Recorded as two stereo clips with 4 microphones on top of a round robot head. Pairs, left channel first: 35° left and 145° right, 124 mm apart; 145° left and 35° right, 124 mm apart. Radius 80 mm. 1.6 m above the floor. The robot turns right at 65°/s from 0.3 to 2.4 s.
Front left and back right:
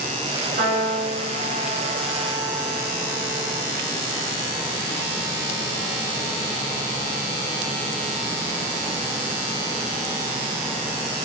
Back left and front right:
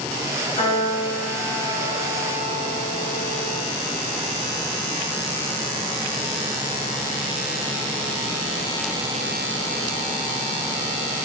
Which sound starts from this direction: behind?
A piano, at 0.6 s.